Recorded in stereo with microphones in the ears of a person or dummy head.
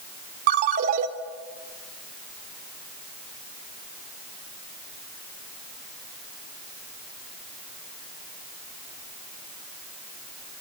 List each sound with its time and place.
0.5 s a ringtone: 40° right (ahead or behind), 1.4 m